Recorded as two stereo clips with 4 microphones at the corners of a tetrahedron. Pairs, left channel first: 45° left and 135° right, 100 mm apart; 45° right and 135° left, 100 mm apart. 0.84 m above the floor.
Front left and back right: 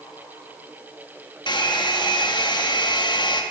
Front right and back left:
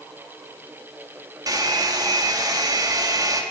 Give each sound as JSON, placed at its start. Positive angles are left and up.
{"t": 1.5, "sound": "a hair dryer", "azimuth_deg": 85, "distance_m": 0.8}